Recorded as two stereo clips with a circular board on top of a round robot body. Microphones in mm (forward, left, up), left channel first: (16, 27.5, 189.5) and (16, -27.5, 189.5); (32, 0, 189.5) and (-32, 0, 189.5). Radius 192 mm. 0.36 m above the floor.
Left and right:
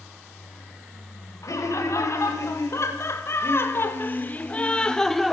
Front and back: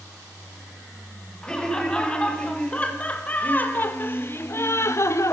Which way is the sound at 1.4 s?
75° left.